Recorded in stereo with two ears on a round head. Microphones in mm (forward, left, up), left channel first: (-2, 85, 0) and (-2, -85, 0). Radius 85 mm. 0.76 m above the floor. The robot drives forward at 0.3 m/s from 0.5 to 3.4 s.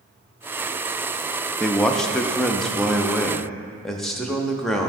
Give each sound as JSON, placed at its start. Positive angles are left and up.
{"t": 1.6, "sound": "a man speaking", "side_deg": 5, "distance_m": 0.5}